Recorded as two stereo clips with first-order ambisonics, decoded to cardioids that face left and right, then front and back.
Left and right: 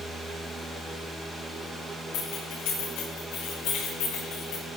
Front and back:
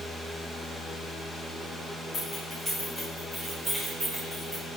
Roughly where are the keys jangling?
Left.